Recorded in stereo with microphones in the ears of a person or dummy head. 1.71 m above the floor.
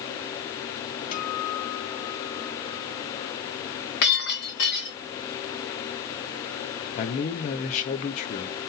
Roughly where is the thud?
I don't hear a thud.